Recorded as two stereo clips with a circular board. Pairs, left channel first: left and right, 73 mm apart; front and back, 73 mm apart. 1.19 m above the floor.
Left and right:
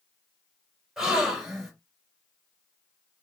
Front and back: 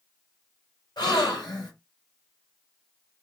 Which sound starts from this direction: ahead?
A gasp, at 1.0 s.